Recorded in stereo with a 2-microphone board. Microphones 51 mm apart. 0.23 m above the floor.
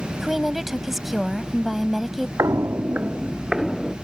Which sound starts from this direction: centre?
A woman speaking, at 0.1 s.